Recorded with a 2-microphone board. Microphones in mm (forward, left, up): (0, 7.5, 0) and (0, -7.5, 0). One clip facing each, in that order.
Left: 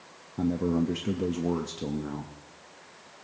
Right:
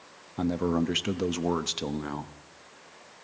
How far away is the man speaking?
About 0.6 m.